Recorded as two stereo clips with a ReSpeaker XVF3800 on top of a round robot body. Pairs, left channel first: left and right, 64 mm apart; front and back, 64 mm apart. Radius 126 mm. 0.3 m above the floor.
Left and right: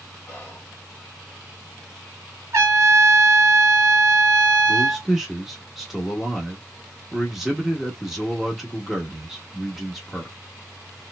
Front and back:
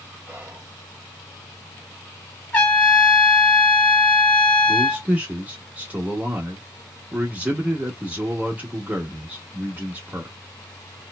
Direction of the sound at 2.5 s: 65° right.